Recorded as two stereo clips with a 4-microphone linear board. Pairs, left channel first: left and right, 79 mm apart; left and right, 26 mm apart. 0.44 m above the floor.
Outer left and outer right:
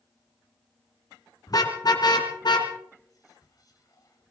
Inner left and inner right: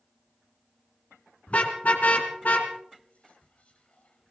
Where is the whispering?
45° left (ahead or behind), 2.5 m.